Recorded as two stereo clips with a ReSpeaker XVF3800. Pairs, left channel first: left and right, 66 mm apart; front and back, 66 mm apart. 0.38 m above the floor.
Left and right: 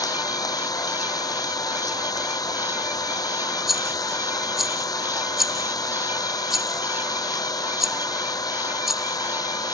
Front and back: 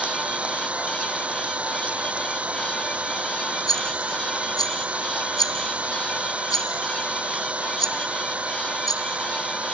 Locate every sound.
0.0 s an engine running: 110° left
3.7 s a rattle: 5° right